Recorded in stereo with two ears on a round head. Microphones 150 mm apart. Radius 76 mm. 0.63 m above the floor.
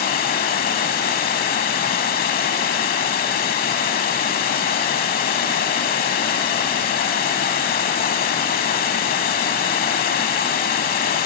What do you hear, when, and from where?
0.0 s running water: 55° left (ahead or behind), 0.8 m